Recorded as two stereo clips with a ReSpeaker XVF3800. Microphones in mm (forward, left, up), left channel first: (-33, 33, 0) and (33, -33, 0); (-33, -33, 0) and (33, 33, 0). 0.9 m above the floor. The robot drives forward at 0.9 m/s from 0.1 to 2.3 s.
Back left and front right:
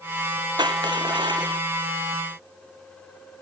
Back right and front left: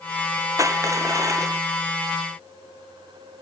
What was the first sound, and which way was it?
Crushing, 10° right.